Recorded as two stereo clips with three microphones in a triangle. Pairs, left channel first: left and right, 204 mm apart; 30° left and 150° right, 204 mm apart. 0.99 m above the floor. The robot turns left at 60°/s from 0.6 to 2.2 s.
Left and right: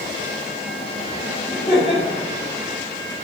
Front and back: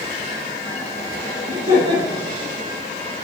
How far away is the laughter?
About 3 m.